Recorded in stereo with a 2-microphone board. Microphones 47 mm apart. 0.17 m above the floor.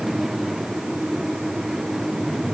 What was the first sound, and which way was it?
Only background noise.